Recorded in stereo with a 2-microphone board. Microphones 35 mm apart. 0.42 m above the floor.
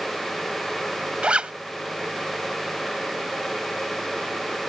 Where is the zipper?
35° right (ahead or behind).